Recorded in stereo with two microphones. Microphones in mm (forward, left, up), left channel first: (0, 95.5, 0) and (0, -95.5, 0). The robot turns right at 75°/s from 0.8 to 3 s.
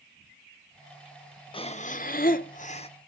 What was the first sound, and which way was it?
Breathing, 35° left.